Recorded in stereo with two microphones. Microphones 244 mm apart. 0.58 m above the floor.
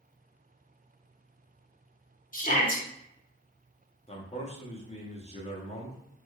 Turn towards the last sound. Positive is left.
turn(degrees=25)  # may be behind; listen again after turning